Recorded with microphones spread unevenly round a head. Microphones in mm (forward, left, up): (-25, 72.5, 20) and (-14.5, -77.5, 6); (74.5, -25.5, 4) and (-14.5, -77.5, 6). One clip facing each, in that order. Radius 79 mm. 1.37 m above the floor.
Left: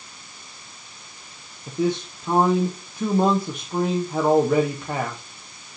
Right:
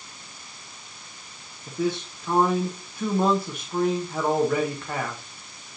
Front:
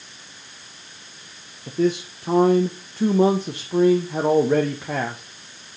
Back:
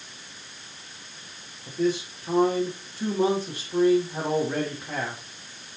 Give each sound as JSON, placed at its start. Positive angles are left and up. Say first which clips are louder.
{"t": 1.7, "sound": "a man speaking", "louder": "left 3 dB, front 4 dB", "azimuth_deg": 20, "distance_m": 1.1}